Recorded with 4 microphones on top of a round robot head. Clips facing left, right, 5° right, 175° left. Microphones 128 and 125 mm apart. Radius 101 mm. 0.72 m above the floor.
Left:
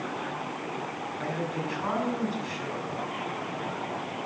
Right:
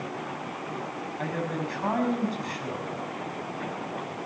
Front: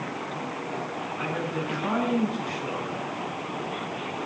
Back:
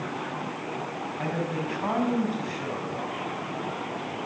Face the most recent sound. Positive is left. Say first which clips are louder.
# right 1 dB, back 1 dB
turn(degrees=-130)